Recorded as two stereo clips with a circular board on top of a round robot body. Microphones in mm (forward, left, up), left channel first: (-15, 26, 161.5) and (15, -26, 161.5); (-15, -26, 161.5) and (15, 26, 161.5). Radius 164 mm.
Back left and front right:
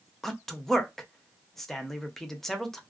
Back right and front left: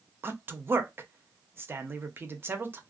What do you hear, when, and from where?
0.2 s a man speaking: 40° left, 0.8 m